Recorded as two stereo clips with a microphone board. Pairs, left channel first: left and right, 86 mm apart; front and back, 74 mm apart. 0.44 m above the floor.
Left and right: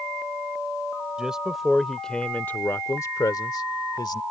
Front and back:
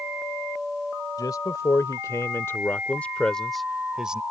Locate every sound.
1.2 s a man speaking: 10° right; by 4.2 s 105° left